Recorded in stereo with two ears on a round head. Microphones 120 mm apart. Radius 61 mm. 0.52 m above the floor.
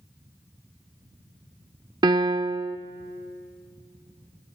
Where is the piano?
30° right (ahead or behind), 0.5 m.